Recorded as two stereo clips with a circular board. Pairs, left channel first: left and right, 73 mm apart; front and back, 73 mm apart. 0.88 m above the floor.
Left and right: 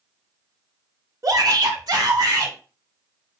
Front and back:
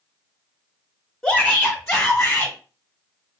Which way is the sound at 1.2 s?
80° right.